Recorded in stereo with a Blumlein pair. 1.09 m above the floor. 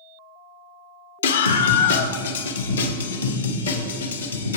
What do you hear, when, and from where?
1.2 s a scream: 65° left, 1.1 m; by 4.6 s 75° left, 3 m